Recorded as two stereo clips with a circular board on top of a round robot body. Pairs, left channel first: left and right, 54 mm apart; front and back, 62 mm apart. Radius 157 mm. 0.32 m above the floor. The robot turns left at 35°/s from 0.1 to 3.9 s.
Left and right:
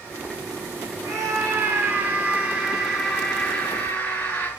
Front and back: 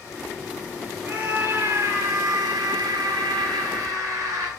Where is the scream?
115° right, 6 m; by 4.5 s 145° left, 6 m.